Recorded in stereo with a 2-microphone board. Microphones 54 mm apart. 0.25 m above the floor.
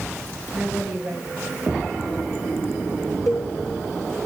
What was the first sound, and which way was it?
A woman speaking, 10° right (ahead or behind).